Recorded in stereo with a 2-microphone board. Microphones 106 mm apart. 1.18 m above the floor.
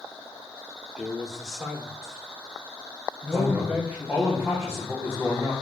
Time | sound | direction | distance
1.0 | a man speaking | 5° left (ahead or behind) | 2 m
3.3 | a man speaking | 15° right (ahead or behind) | 3.5 m